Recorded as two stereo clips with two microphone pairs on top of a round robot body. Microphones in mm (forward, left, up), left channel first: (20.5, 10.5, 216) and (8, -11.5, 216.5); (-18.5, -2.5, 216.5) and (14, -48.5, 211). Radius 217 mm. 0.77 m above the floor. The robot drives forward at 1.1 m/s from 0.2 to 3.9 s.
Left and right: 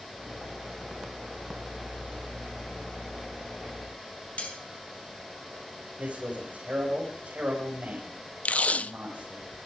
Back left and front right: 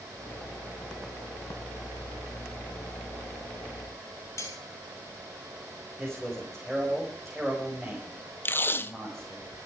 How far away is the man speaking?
About 5.5 m.